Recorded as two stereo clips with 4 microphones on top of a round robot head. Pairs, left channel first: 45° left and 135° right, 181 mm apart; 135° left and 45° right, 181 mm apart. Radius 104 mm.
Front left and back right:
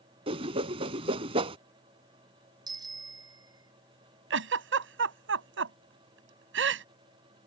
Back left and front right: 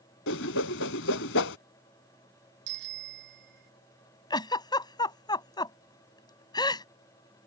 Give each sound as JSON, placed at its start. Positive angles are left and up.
{"t": 0.3, "sound": "a whoosh", "azimuth_deg": 160}
{"t": 2.7, "sound": "a bicycle bell", "azimuth_deg": -65}
{"t": 4.3, "sound": "a giggle", "azimuth_deg": -155}